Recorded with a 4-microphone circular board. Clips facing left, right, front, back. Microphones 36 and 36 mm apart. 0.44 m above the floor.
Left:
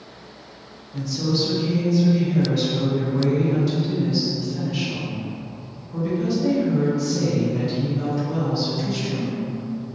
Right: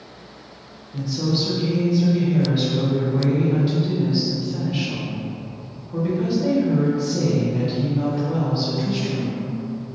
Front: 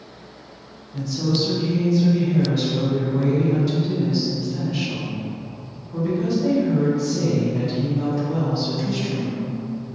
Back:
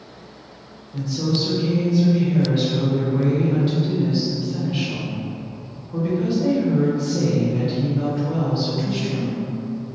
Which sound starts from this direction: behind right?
A woman speaking, at 0.9 s.